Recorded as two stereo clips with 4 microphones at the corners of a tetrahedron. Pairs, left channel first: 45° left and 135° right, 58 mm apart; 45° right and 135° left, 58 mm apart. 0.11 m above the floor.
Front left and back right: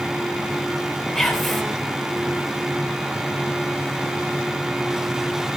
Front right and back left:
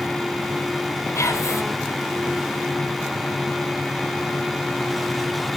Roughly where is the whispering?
Ahead right.